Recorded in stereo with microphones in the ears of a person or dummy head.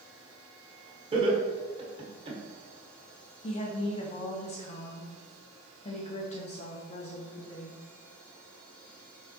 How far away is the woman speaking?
About 0.9 m.